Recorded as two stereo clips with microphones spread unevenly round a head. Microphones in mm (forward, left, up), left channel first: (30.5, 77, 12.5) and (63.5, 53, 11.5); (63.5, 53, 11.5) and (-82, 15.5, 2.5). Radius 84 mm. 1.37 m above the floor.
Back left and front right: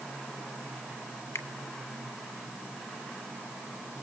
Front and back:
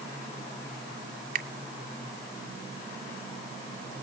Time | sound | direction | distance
1.4 | a finger snap | 165° left | 1.7 m